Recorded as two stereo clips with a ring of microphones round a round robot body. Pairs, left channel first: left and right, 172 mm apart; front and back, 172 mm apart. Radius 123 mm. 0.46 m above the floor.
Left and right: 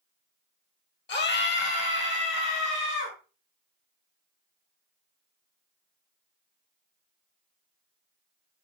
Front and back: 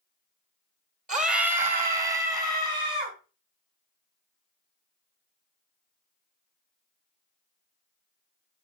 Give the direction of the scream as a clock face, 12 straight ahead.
7 o'clock.